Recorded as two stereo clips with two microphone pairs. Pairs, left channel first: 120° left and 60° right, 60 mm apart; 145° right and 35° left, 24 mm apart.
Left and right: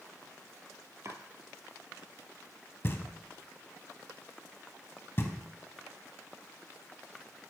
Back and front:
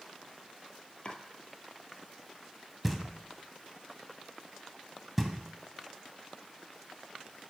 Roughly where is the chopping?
Right.